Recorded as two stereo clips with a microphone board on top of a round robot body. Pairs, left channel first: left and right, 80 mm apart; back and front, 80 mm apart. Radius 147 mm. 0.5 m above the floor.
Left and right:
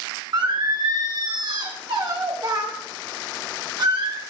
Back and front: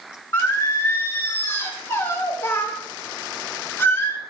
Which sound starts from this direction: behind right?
Singing, at 0.3 s.